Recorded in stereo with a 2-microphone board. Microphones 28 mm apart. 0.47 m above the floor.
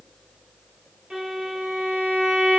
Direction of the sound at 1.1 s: 15° right (ahead or behind).